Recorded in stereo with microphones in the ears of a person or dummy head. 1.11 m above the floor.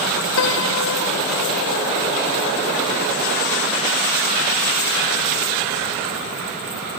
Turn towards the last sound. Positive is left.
turn(degrees=80)